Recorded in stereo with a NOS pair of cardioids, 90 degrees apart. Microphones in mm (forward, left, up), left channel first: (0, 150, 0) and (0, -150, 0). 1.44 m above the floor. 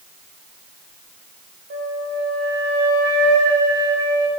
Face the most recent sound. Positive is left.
turn(degrees=-50)